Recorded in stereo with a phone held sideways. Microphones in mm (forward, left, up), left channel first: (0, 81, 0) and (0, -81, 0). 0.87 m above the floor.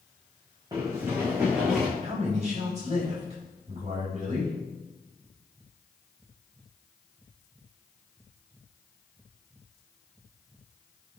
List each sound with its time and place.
0.7 s running footsteps: 20° right (ahead or behind), 3.5 m; by 1.9 s centre (ahead or behind), 4.5 m
2.0 s a man speaking: 45° right (ahead or behind), 4 m